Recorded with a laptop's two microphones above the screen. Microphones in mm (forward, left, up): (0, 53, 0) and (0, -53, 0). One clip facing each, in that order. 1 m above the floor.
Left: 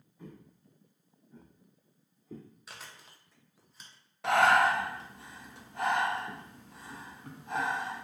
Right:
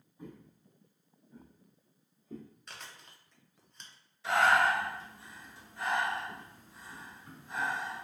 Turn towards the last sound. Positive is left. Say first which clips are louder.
# left 2 dB
turn(degrees=65)  # may be behind; listen again after turning